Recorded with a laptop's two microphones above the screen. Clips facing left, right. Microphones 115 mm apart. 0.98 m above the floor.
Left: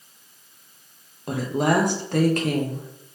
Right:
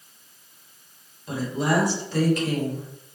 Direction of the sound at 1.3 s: 55° left (ahead or behind).